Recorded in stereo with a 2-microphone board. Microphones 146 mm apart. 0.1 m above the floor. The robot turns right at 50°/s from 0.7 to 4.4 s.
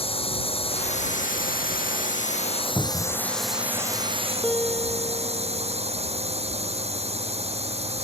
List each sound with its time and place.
0.0 s a drone: 40° left; by 8.1 s 135° right
2.8 s a cupboard door: 15° left (ahead or behind); by 3.2 s 5° right (ahead or behind)
4.4 s a piano: 10° left (ahead or behind)